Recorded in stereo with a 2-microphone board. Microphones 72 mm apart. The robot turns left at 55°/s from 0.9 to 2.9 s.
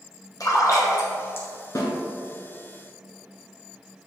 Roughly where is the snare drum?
Left.